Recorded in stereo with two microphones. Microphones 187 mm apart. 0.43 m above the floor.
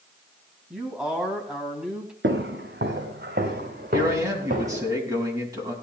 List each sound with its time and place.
0.7 s a man speaking: 5° right (ahead or behind), 2.5 m
2.2 s footsteps: 75° right (ahead or behind), 1.9 m; by 4.9 s 45° right (ahead or behind), 3.5 m
3.9 s a man speaking: 20° right (ahead or behind), 4 m